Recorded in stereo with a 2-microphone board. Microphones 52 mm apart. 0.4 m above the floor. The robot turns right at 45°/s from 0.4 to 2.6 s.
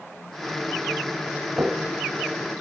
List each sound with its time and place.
1.6 s footsteps: 40° right (ahead or behind), 0.7 m; by 2.5 s centre (ahead or behind), 0.7 m